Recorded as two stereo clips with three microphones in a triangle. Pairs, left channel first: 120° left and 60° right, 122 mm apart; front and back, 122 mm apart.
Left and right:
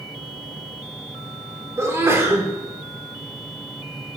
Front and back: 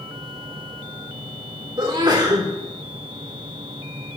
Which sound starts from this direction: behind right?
A sneeze, at 1.8 s.